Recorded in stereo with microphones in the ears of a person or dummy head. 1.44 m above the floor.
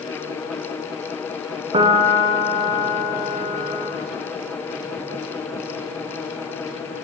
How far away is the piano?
About 0.9 m.